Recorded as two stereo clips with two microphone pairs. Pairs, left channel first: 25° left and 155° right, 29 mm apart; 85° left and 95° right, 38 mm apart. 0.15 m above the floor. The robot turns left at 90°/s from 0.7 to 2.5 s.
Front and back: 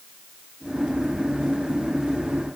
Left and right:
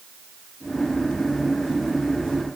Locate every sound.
Only background noise.